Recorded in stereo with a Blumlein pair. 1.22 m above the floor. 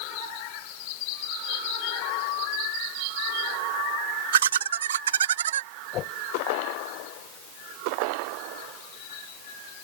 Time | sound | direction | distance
4.3 | laughter | 65° right | ?
5.9 | a whoosh | 35° left | ?